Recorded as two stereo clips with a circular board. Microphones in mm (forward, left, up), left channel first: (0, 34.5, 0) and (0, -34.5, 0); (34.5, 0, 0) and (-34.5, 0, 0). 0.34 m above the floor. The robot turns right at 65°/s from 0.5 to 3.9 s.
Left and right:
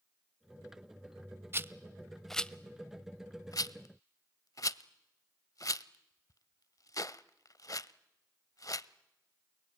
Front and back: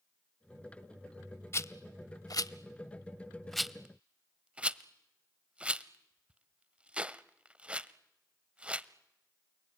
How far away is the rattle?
About 0.5 m.